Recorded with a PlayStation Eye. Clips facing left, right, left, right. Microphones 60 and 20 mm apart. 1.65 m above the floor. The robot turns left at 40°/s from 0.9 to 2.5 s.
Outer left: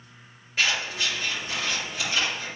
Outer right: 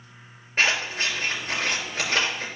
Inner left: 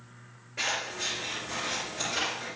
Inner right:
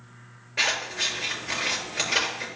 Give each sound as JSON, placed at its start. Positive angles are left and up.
{"t": 0.6, "sound": "scissors", "side_deg": -40, "distance_m": 4.5}